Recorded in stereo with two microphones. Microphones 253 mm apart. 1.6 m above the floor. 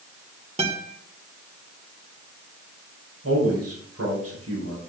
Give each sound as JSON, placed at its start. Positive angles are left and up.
{"t": 0.6, "sound": "a guitar", "side_deg": -25, "distance_m": 1.7}
{"t": 3.2, "sound": "a man speaking", "side_deg": -80, "distance_m": 6.0}